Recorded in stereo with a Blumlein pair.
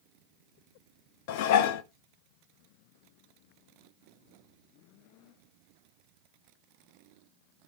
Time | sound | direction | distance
1.3 | dishes clattering | 50° left | 0.5 m